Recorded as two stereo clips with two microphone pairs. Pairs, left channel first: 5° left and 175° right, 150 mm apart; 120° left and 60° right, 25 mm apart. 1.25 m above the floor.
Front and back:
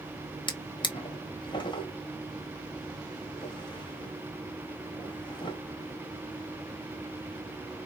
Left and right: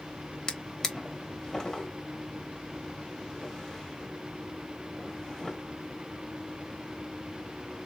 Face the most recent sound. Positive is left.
turn(degrees=55)